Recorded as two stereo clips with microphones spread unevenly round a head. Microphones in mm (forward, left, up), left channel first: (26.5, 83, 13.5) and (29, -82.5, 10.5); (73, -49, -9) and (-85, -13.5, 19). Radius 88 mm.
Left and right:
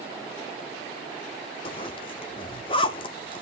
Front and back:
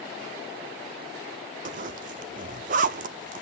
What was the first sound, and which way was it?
A zipper, 150° left.